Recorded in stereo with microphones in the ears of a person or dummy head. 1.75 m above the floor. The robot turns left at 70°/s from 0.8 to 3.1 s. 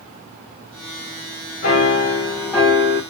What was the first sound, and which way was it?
A piano, 80° left.